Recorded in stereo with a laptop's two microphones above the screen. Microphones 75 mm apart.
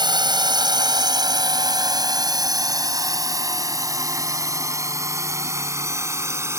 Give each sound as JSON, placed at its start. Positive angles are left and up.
{"t": 0.0, "sound": "a drone", "side_deg": -75}